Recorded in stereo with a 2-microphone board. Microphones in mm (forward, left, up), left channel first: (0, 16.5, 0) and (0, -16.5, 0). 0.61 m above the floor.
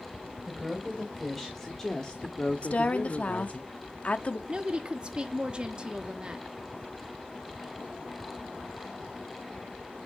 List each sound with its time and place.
0.5 s a woman speaking: 5° right (ahead or behind), 3 m; by 3.6 s 50° left (ahead or behind), 1.6 m
2.6 s a woman speaking: 40° left (ahead or behind), 0.7 m
4.5 s a woman speaking: 30° right (ahead or behind), 1.0 m